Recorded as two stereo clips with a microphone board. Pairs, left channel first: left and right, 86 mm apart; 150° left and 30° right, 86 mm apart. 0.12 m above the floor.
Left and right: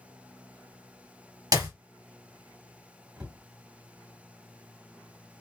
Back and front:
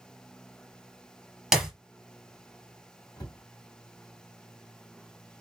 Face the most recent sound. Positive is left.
turn(degrees=-170)